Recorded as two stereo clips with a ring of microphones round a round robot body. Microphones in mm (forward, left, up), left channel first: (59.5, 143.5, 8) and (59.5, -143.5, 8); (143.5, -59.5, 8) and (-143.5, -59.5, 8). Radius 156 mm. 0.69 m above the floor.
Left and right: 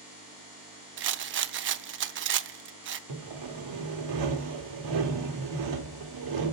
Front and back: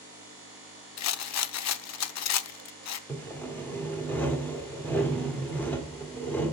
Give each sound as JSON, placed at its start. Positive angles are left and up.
{"t": 1.0, "sound": "a rattle", "azimuth_deg": -35, "distance_m": 0.6}
{"t": 3.1, "sound": "sawing", "azimuth_deg": -85, "distance_m": 1.3}